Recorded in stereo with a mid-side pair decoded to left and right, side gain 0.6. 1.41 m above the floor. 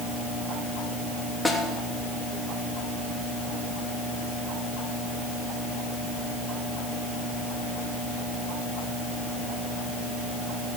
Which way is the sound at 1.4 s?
5° left.